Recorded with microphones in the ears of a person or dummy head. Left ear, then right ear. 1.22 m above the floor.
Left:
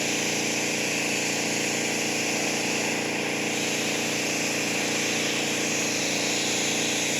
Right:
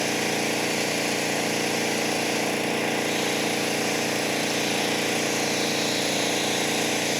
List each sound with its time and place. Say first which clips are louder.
0.0 s an engine running: right 1 dB; 25° right (ahead or behind)